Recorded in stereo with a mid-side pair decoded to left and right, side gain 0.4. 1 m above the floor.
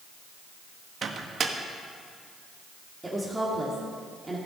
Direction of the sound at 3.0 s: 20° right.